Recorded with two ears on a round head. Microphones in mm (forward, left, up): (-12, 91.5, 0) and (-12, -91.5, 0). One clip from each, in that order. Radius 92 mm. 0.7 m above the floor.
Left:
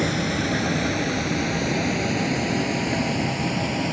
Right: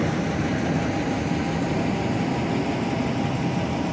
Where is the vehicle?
70° left (ahead or behind); by 3.9 s 85° left.